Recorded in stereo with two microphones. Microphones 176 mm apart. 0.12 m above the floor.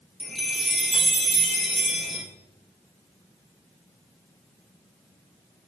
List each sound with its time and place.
0.2 s a chime: centre (ahead or behind), 2.5 m